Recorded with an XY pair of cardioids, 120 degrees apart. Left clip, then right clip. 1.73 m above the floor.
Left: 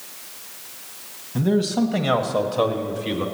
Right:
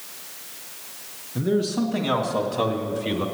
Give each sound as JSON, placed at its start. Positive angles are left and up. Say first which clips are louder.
{"t": 1.4, "sound": "a man speaking", "louder": "left 2 dB", "azimuth_deg": 65, "distance_m": 1.6}